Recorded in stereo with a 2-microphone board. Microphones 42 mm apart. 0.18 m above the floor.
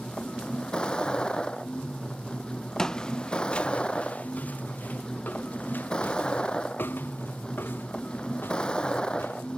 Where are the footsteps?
15° left (ahead or behind); by 9.6 s 65° left (ahead or behind).